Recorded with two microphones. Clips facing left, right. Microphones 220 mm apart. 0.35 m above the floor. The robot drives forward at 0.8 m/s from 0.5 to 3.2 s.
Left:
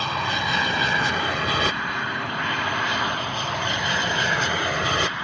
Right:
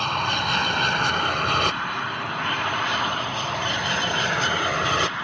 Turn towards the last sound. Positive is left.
turn(degrees=5)  # may be behind; listen again after turning